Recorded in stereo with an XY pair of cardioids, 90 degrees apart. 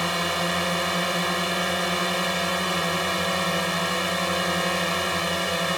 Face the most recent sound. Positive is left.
turn(degrees=0)